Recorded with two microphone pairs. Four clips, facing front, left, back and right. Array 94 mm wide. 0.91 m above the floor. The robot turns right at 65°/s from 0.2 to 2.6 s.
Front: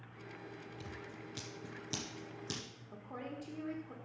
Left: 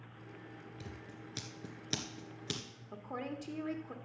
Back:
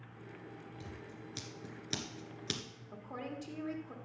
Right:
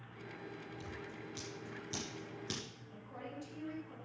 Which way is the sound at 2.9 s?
105° left.